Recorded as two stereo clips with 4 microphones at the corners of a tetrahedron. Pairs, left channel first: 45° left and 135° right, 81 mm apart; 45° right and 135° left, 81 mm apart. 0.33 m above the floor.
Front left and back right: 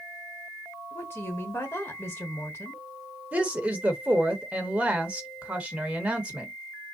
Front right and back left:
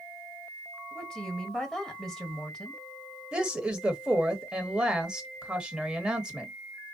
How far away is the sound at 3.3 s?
About 1.0 m.